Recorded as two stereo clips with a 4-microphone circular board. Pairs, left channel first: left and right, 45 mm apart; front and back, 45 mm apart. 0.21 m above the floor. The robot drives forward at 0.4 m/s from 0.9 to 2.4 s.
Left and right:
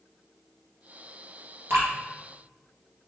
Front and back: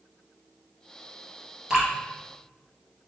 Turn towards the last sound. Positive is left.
turn(degrees=-115)